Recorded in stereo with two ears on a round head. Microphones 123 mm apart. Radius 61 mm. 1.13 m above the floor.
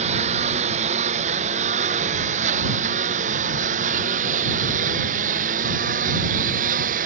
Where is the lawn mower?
45° right (ahead or behind); by 7.1 s 60° right (ahead or behind).